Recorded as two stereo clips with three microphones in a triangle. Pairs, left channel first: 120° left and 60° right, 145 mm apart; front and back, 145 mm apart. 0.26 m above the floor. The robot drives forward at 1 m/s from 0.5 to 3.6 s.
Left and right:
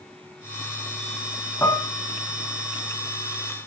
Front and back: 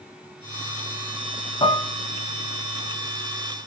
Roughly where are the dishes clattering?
Ahead left.